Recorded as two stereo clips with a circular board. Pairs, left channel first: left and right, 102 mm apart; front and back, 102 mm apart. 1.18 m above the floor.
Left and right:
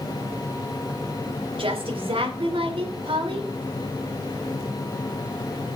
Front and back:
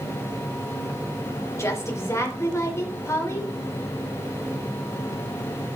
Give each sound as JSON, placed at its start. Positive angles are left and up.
{"t": 1.6, "sound": "a woman speaking", "azimuth_deg": -60, "distance_m": 3.5}